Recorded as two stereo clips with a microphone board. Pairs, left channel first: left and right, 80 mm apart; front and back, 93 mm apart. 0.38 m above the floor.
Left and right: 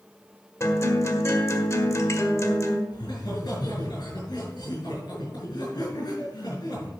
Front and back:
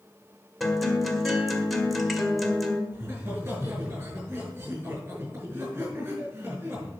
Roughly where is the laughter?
Behind left.